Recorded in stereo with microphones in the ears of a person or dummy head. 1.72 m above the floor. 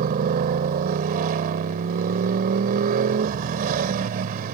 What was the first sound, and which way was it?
A motorcycle, 50° right (ahead or behind).